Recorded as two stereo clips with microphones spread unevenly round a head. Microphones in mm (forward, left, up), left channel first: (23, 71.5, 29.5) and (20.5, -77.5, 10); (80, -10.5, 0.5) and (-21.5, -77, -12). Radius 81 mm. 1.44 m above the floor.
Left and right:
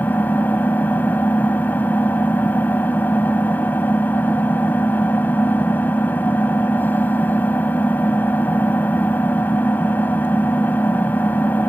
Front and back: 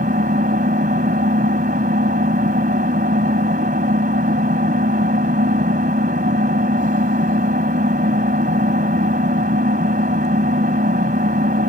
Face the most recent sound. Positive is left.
turn(degrees=165)